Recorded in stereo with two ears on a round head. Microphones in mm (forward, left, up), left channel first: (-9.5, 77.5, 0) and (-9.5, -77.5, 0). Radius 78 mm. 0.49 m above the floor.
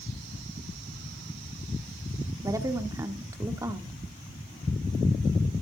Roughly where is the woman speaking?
Centre.